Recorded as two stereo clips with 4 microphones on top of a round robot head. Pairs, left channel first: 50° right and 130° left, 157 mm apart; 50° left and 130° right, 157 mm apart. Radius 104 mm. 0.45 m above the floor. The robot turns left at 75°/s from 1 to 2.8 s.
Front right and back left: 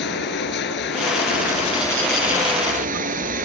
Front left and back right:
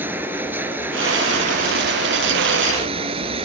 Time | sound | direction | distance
0.0 | running water | 55° right | ?